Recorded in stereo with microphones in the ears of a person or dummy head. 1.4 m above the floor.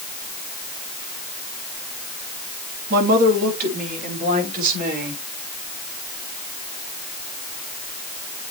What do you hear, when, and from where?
2.9 s a woman speaking: 50° right (ahead or behind), 3 m; by 5.2 s 45° right (ahead or behind), 6 m